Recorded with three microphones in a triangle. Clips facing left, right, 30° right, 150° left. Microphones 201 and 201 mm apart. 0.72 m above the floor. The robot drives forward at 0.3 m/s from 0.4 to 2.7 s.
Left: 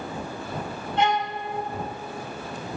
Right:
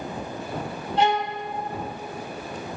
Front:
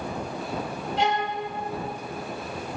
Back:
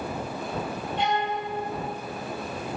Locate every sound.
1.0 s a violin: 35° right, 1.5 m